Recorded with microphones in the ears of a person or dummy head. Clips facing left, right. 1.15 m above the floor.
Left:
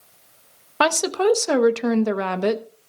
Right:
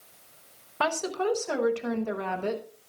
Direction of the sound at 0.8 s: 70° left (ahead or behind).